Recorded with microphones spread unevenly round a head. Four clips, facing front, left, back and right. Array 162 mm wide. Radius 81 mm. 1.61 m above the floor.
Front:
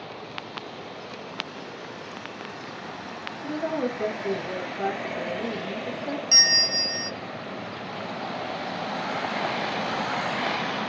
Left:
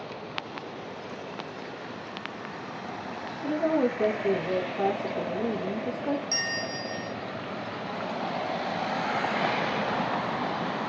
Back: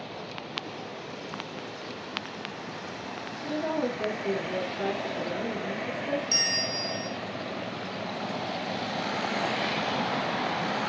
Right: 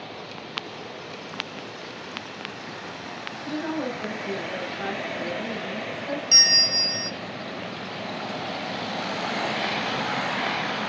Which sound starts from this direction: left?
A woman speaking, at 3.4 s.